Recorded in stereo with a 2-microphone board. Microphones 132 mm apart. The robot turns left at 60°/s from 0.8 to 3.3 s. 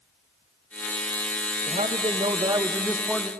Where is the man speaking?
90° right, 0.9 m; by 3.3 s 175° left, 0.9 m.